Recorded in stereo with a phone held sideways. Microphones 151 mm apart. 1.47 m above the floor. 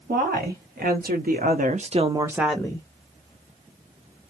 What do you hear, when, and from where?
0.1 s a woman speaking: 85° right, 1.5 m; by 2.9 s 20° left (ahead or behind), 0.6 m